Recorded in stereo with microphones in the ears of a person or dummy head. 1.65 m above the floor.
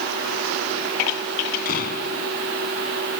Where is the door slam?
50° left (ahead or behind).